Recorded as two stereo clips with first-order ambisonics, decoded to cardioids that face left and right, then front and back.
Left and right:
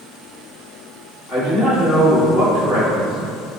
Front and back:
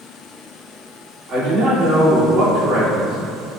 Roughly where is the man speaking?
Behind right.